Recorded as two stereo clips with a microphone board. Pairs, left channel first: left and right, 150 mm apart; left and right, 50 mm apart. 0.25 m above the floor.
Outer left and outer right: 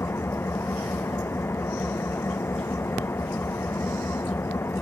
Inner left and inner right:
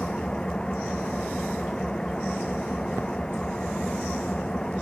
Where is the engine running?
15° left (ahead or behind).